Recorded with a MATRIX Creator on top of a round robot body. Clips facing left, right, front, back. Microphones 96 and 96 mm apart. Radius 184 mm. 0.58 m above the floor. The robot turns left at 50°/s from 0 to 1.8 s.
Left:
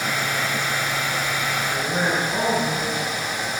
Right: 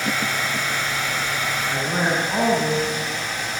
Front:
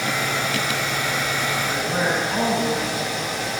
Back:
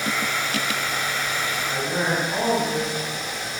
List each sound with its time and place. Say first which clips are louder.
1.7 s a man speaking: right 1 dB, even; 75° right, 7.5 m; by 3.0 s 80° right, 7.5 m